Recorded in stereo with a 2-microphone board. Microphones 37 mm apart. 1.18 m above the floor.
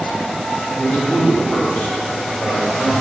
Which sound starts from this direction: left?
A man speaking, at 0.8 s.